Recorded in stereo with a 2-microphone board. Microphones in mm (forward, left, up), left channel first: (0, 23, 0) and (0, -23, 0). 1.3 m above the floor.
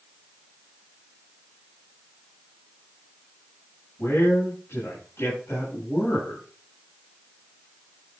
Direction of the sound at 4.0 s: 80° left.